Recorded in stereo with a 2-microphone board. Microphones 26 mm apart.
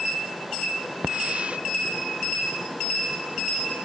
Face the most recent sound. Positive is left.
turn(degrees=-45)  # may be behind; listen again after turning